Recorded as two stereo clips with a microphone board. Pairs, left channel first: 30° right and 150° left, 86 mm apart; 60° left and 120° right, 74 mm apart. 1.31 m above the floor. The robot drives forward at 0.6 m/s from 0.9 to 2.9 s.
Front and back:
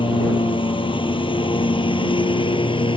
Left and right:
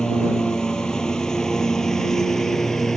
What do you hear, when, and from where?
0.0 s a lawn mower: 20° right; by 3.0 s 25° right